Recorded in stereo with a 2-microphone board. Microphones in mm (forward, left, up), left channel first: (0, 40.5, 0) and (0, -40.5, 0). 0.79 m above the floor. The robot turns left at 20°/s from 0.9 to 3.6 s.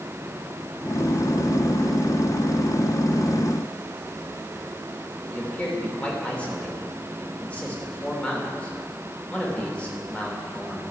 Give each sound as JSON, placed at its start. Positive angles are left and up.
{"t": 5.3, "sound": "a man speaking", "side_deg": 15, "distance_m": 2.5}